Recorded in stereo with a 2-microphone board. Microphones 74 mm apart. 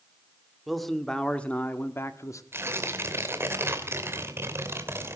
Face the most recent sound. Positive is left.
turn(degrees=-30)  # may be behind; listen again after turning